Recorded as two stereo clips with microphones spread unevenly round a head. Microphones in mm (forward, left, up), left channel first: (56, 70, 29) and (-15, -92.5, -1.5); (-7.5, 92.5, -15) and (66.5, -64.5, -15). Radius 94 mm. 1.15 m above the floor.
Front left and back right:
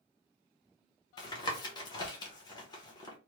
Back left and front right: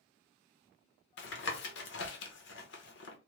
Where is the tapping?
140° left, 0.8 m.